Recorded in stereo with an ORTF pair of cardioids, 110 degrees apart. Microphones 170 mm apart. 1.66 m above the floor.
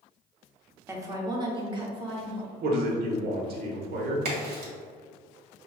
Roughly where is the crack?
Right.